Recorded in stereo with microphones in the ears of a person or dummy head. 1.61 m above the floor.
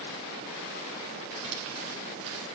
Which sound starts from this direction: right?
Crumpling, at 1.3 s.